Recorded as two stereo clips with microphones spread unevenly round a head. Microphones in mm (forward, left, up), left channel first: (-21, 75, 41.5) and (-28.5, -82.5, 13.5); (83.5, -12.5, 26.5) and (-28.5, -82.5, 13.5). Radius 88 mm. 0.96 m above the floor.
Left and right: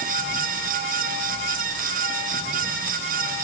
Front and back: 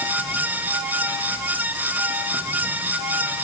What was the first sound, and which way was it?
Only background noise.